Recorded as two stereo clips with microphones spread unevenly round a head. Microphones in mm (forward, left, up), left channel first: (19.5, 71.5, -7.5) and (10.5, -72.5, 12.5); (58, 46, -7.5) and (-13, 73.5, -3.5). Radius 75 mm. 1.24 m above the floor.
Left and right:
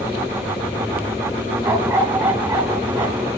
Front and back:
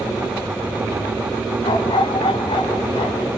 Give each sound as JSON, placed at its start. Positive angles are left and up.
{"t": 1.6, "sound": "a dog barking", "azimuth_deg": -25, "distance_m": 4.0}